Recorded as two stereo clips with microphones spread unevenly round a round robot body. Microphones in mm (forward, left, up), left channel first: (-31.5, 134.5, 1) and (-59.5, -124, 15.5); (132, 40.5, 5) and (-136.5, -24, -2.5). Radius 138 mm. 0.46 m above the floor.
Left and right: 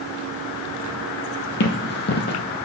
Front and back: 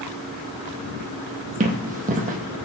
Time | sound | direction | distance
1.6 | running footsteps | 130° left | 0.9 m